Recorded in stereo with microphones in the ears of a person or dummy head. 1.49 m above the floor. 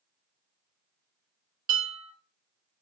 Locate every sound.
1.7 s dishes clattering: 55° right (ahead or behind), 1.6 m